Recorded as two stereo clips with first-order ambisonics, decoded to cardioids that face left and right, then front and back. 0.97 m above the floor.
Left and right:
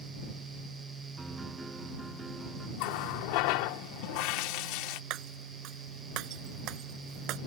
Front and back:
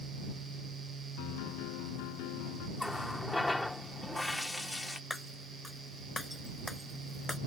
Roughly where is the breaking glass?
Right.